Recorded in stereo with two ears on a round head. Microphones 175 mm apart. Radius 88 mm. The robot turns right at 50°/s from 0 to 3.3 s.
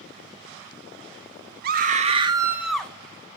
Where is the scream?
55° right, 1.6 m; by 2.9 s 10° left, 1.6 m.